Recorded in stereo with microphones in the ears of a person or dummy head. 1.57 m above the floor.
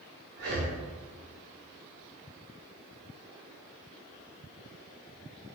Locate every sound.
0.4 s breathing: 60° right (ahead or behind), 1.4 m